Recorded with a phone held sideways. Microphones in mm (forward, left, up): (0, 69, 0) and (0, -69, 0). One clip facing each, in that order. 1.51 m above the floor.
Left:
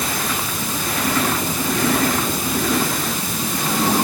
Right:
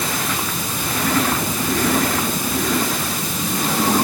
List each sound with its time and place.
Only background noise.